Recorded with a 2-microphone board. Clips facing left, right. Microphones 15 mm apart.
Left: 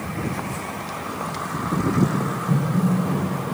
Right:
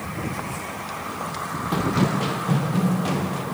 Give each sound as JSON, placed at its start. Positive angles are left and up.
{"t": 1.7, "sound": "running footsteps", "side_deg": -80, "distance_m": 0.6}